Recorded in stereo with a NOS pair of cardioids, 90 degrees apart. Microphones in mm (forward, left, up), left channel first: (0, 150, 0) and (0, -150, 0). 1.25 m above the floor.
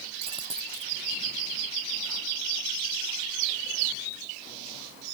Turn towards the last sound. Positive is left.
turn(degrees=-20)